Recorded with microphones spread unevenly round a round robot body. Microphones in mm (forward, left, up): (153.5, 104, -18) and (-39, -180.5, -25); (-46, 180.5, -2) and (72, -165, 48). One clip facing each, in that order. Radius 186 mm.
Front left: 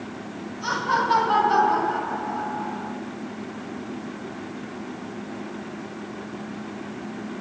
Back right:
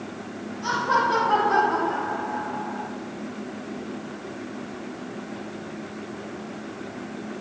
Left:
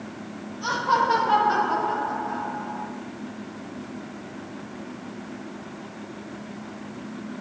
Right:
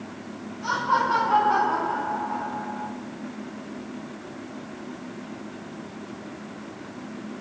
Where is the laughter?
105° left, 8 m; by 2.9 s 110° left, 9 m.